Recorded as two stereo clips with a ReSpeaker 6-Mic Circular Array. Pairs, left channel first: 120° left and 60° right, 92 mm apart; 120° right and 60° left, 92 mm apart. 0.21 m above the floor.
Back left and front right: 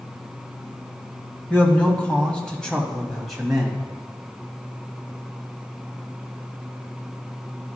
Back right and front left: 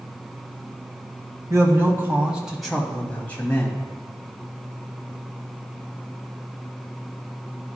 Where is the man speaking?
60° left, 1.3 m; by 3.8 s 145° right, 1.3 m.